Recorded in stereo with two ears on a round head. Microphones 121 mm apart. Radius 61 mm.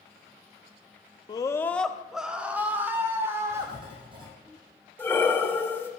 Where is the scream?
30° left (ahead or behind), 0.7 m; by 4.5 s 20° right (ahead or behind), 3 m.